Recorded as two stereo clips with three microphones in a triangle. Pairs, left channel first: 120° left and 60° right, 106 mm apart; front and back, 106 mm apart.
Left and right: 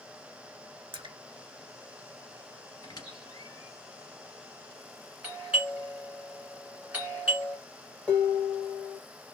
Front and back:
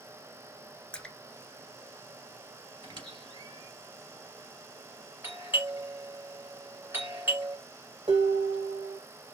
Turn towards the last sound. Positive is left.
turn(degrees=-160)